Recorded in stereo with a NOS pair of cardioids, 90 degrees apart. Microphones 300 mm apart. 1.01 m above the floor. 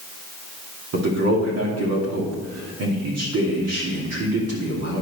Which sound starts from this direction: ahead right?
A man speaking, at 0.9 s.